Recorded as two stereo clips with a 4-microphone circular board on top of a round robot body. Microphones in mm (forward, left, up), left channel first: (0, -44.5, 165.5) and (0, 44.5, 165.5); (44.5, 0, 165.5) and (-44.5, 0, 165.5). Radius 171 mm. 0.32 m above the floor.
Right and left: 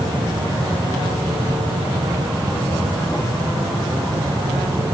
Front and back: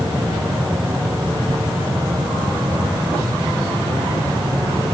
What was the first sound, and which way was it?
Only background noise.